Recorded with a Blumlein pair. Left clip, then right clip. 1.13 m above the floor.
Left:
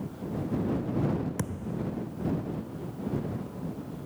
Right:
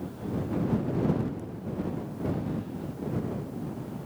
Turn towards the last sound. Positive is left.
turn(degrees=50)